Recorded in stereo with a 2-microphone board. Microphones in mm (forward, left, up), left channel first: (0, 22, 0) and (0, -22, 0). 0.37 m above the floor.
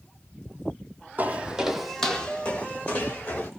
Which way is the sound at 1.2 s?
35° right (ahead or behind).